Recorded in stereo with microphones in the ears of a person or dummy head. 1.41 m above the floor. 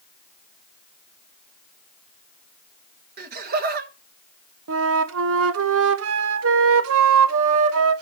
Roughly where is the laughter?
Right.